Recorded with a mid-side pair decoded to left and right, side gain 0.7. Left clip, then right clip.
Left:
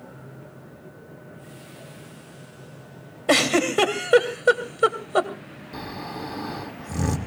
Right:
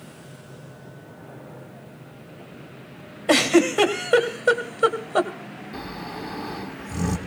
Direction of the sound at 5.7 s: 20° left.